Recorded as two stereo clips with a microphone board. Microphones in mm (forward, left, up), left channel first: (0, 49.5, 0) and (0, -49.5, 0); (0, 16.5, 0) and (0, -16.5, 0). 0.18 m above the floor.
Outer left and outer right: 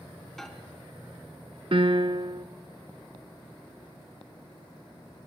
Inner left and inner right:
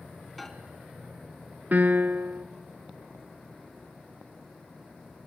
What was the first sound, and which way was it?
A microwave, 5° left (ahead or behind).